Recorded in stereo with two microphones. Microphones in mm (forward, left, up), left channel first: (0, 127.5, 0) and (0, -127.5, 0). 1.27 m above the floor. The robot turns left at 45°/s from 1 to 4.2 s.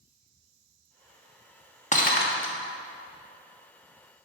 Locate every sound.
1.9 s breaking glass: 30° left (ahead or behind), 1.4 m; by 2.5 s 55° left (ahead or behind), 1.4 m